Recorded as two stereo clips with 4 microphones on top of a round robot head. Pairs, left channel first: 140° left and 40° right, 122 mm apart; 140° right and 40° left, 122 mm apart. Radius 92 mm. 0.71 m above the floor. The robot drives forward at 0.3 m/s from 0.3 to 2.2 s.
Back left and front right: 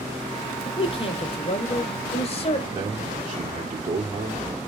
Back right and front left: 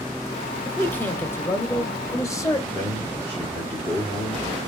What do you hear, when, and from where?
0.7 s a man speaking: 145° left, 1.0 m; by 2.6 s 160° left, 1.3 m
2.7 s a man speaking: 85° right, 1.8 m